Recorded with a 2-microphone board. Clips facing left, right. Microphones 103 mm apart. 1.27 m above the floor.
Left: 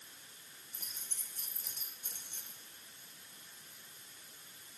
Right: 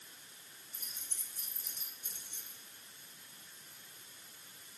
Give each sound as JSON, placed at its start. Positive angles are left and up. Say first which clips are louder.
{"t": 0.7, "sound": "keys jangling", "louder": "left 1 dB", "side_deg": 60, "distance_m": 3.0}